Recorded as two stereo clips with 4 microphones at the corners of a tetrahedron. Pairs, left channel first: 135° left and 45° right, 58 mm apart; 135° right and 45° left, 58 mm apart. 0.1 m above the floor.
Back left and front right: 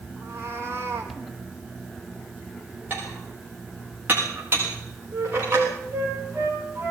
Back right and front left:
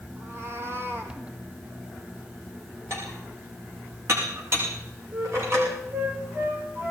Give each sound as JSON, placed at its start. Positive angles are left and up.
{"t": 0.2, "sound": "a cat meowing", "azimuth_deg": 5, "distance_m": 3.0}
{"t": 2.9, "sound": "dishes clattering", "azimuth_deg": 5, "distance_m": 6.0}
{"t": 5.1, "sound": "a flute", "azimuth_deg": 0, "distance_m": 7.5}